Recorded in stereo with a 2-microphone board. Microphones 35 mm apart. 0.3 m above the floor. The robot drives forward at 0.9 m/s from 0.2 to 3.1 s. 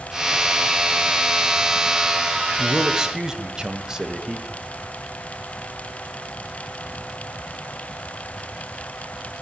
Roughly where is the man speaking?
Right.